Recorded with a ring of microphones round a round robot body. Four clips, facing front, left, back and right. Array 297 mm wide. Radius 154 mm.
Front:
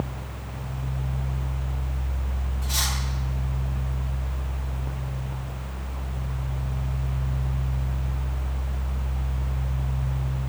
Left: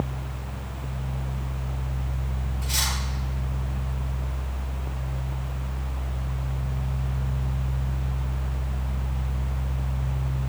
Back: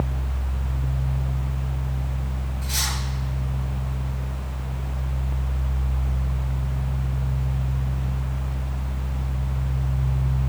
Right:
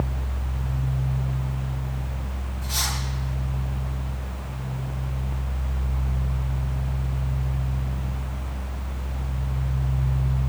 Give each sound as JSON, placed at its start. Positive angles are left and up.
{"t": 2.6, "sound": "cutlery clinking", "azimuth_deg": 130, "distance_m": 5.5}